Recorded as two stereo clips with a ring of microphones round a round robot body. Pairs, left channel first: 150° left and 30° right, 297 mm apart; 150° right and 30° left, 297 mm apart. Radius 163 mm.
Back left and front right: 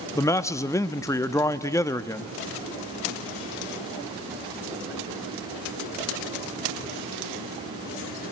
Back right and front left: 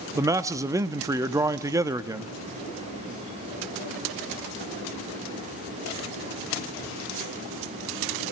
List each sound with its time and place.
0.1 s a man speaking: 90° left, 0.6 m